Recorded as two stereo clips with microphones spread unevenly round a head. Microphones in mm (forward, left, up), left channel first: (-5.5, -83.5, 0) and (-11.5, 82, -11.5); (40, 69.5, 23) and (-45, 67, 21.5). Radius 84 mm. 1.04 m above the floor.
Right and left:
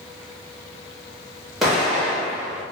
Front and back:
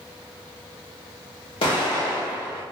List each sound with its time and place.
1.6 s an explosion: straight ahead, 1.5 m